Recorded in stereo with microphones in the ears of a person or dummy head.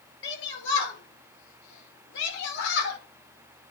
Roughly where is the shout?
Left.